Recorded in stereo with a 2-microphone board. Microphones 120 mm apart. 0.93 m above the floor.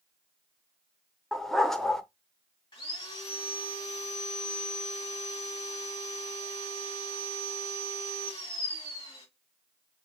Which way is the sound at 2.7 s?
40° left (ahead or behind).